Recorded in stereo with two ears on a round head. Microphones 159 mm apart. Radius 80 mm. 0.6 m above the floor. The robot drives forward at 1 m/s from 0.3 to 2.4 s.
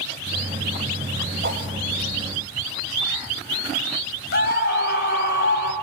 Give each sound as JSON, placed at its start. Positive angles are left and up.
{"t": 1.4, "sound": "a whoosh", "side_deg": -45, "distance_m": 2.5}
{"t": 4.3, "sound": "a scream", "side_deg": 65, "distance_m": 4.0}